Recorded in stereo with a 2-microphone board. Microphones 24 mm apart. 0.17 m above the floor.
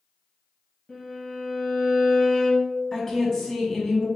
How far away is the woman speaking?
About 1.0 m.